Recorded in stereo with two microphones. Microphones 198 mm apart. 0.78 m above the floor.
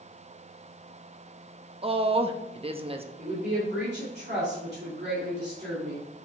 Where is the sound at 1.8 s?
30° right (ahead or behind), 0.7 m.